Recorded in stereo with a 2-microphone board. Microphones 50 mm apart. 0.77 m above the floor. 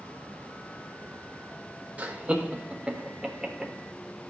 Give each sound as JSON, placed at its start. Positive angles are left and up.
{"t": 2.0, "sound": "laughter", "side_deg": -30, "distance_m": 2.0}